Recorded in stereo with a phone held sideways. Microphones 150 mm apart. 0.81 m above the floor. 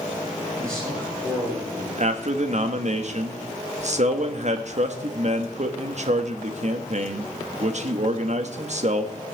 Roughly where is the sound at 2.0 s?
Right.